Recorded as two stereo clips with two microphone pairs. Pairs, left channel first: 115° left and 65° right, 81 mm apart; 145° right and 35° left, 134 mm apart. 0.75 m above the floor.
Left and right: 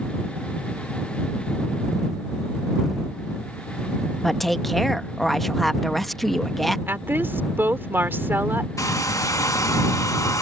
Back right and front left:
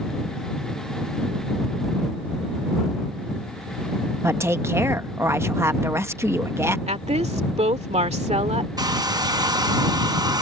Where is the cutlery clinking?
I don't hear cutlery clinking.